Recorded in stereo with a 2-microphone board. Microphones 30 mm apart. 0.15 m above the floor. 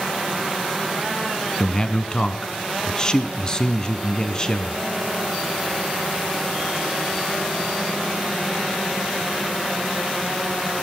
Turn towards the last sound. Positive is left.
turn(degrees=25)  # may be behind; listen again after turning